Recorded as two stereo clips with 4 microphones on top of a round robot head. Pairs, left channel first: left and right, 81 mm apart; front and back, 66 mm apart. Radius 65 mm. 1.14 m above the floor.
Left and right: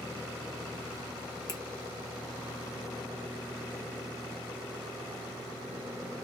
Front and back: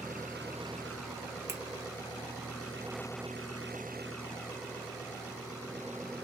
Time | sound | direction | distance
1.5 | a finger snap | 130° left | 1.0 m